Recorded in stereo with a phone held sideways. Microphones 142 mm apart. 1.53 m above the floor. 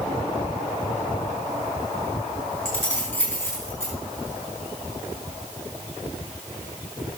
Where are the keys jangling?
15° left (ahead or behind), 5 m.